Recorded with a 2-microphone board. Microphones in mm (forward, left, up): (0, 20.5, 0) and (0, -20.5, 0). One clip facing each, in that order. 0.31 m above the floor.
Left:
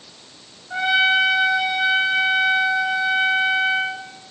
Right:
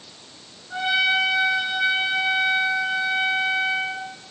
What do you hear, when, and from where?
0.7 s a trumpet: 15° left (ahead or behind), 2.5 m